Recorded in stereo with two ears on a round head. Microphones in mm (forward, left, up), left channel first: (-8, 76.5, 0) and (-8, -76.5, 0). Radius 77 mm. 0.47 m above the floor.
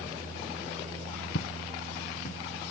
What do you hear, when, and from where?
1.4 s footsteps: 75° left (ahead or behind); by 2.4 s 50° left (ahead or behind)